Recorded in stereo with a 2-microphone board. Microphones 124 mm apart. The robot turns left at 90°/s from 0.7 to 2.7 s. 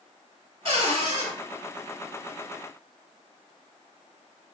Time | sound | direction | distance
0.7 | a cupboard door | 70° right | 1.4 m